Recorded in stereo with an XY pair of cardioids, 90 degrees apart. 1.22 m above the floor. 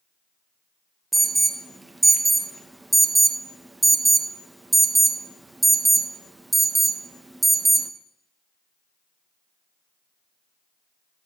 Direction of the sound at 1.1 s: 15° right.